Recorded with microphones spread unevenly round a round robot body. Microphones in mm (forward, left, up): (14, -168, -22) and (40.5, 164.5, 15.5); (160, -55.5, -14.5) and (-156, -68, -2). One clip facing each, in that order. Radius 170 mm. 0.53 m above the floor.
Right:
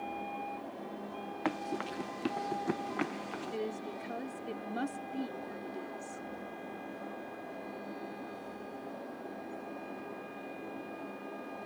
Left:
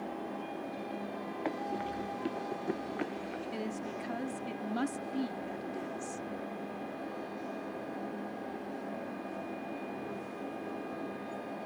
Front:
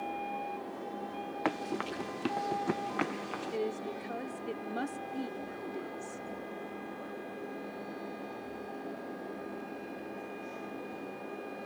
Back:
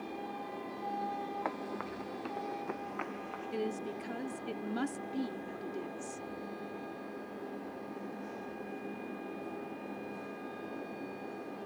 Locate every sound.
1.4 s running footsteps: 35° right; by 3.6 s 25° right
3.5 s a woman speaking: 130° left